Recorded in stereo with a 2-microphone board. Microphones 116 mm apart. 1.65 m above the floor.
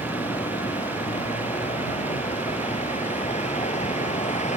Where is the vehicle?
70° left (ahead or behind); by 4.6 s 75° left (ahead or behind).